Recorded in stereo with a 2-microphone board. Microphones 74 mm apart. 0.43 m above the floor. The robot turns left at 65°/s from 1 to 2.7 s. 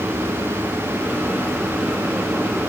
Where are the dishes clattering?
No dishes clattering in this recording.